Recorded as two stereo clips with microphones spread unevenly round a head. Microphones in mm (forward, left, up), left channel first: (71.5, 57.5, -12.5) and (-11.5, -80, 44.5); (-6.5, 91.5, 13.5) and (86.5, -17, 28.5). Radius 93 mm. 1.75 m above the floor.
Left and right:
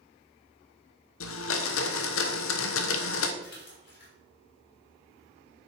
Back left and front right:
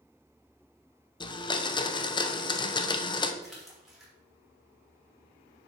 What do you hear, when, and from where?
1.2 s a blender: 75° left, 0.8 m
3.4 s a splash: 40° left, 4 m